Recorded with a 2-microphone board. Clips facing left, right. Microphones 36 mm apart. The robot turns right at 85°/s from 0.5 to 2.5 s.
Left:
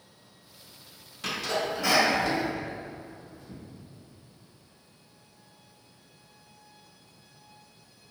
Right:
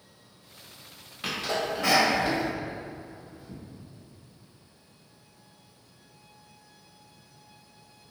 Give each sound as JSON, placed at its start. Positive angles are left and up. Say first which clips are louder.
{"t": 1.2, "sound": "a sneeze", "louder": "even", "side_deg": -25, "distance_m": 1.2}